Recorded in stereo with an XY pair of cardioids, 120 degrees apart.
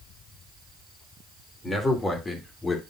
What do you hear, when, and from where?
1.6 s a man speaking: 25° left, 3 m